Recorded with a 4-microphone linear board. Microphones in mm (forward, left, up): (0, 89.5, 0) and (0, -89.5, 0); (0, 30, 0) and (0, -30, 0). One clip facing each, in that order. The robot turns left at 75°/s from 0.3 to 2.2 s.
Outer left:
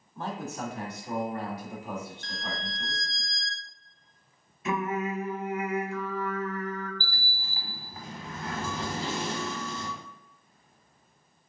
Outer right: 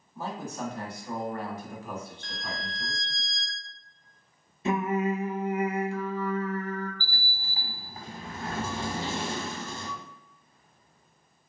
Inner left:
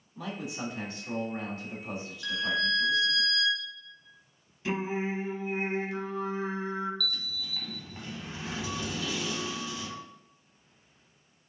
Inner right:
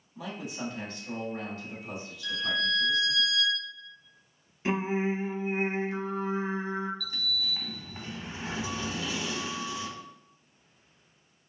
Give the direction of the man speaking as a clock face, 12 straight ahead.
6 o'clock.